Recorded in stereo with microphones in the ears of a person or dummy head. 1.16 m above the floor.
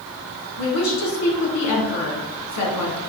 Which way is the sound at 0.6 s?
80° left.